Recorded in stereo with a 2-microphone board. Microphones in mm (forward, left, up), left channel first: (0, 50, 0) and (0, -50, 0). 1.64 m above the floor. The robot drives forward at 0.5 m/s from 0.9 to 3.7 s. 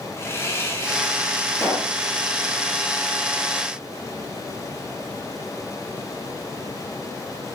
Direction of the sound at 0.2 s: 25° left (ahead or behind).